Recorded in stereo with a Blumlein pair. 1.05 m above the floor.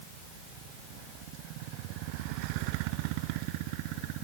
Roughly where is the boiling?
No boiling in this recording.